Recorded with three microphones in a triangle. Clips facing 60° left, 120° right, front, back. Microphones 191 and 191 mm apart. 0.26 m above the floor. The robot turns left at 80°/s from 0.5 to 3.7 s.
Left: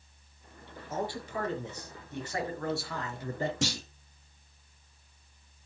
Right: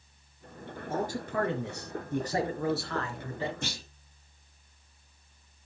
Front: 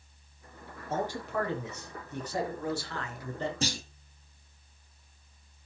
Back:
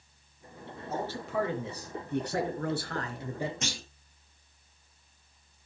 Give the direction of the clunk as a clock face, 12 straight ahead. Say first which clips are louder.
Left 6 dB, front 5 dB; 10 o'clock.